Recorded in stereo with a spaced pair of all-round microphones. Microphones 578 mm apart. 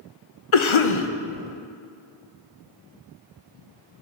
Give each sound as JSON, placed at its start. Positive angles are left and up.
{"t": 0.5, "sound": "a cough", "side_deg": 55, "distance_m": 0.6}